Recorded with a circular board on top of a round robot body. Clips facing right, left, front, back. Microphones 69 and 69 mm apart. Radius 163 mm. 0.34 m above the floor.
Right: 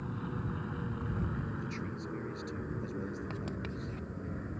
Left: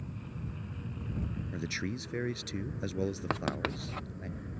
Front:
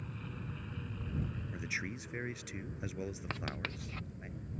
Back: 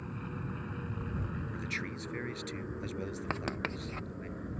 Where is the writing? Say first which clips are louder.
Left 6 dB, back 5 dB; 115° left.